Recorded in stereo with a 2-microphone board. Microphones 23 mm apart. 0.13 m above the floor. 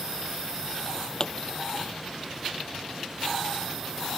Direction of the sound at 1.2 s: 35° left (ahead or behind).